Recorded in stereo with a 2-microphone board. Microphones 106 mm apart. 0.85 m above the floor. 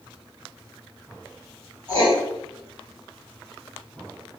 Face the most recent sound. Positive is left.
turn(degrees=40)  # may be behind; listen again after turning